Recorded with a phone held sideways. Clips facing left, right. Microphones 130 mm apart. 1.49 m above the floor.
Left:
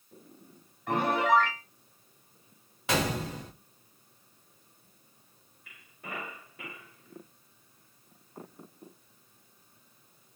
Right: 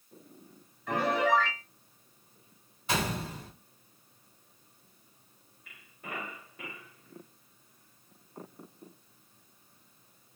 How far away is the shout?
I don't hear a shout.